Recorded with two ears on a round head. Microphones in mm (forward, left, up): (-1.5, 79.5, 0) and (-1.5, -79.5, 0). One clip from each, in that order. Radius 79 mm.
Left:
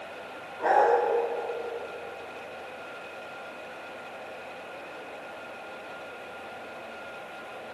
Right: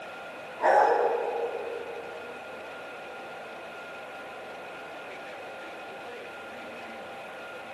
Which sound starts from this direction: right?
A dog barking, at 0.6 s.